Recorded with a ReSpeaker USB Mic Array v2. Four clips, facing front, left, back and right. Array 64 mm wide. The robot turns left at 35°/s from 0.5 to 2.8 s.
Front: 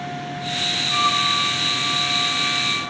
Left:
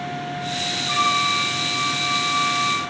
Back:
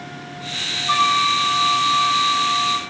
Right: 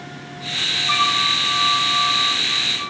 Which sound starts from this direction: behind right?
A flute, at 0.9 s.